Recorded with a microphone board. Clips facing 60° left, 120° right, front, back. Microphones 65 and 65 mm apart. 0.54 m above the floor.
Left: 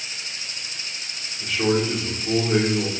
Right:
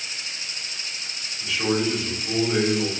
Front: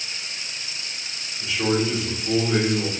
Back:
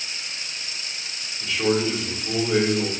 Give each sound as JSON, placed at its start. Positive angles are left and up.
{"t": 1.4, "sound": "a man speaking", "azimuth_deg": 80, "distance_m": 1.1}